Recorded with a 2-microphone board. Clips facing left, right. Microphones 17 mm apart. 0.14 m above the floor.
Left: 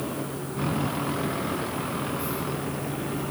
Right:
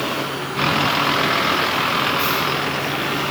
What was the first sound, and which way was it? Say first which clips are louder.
A vehicle: right 9 dB; 60° right (ahead or behind).